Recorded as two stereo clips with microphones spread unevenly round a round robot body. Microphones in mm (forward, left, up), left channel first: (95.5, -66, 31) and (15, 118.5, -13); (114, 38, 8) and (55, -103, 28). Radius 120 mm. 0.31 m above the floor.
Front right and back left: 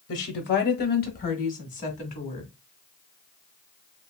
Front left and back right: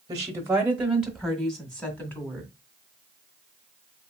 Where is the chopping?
No chopping in this recording.